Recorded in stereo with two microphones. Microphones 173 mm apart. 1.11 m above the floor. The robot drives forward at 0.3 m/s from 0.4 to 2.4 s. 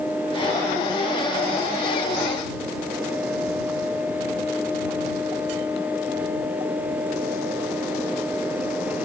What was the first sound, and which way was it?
Only background noise.